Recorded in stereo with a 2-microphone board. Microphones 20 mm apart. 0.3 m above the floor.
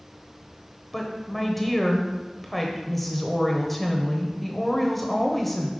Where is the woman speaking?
5° left (ahead or behind), 0.9 m.